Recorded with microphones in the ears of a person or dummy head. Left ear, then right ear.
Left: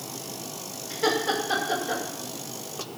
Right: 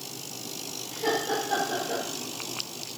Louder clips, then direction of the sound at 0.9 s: Left 3 dB; 60° left (ahead or behind).